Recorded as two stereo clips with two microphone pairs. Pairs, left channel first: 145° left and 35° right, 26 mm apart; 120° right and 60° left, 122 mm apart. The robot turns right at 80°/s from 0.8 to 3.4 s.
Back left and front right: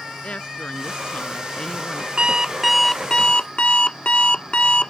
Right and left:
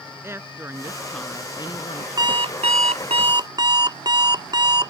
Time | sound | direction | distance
0.2 | a woman speaking | 125° left | ?
2.2 | an alarm clock | 10° left | ?